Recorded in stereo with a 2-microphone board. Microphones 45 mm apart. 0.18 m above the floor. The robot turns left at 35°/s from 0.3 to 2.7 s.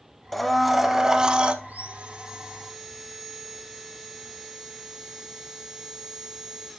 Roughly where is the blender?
Ahead.